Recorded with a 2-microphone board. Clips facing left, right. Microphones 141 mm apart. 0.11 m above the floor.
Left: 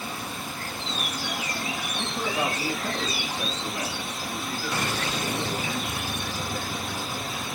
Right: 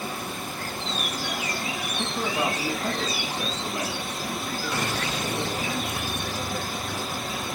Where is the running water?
50° right (ahead or behind), 2.5 m.